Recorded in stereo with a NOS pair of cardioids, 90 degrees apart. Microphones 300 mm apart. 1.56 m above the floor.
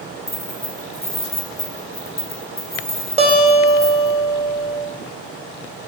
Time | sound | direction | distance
0.3 | keys jangling | 20° left | 1.3 m
3.2 | a guitar | 20° right | 1.3 m